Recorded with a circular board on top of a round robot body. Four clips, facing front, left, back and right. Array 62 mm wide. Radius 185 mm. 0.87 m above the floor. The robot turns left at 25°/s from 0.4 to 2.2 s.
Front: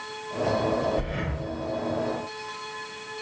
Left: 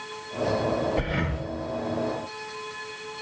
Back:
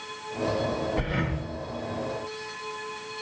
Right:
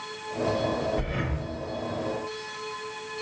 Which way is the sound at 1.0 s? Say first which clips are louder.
Left 3 dB, back 1 dB; 125° left.